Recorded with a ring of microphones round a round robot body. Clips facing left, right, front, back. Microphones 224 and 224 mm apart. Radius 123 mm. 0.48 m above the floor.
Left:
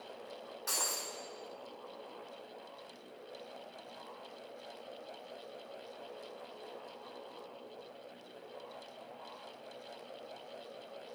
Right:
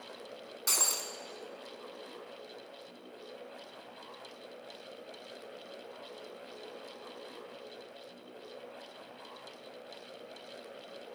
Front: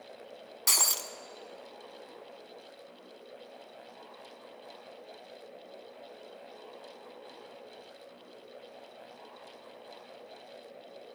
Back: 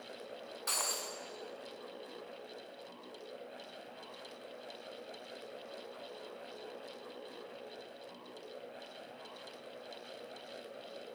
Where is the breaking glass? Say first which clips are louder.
Right 2 dB, front 2 dB; 25° right, 0.7 m.